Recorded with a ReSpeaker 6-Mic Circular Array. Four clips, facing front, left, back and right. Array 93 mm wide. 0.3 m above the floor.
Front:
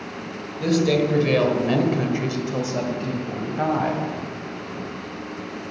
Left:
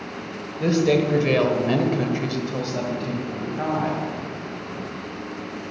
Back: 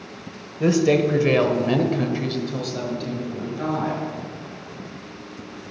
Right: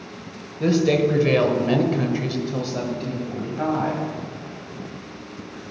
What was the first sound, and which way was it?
A woman speaking, straight behind.